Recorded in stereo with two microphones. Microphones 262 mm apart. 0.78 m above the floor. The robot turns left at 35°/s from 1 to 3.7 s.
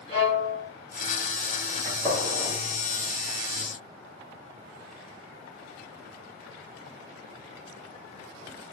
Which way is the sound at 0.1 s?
25° left (ahead or behind).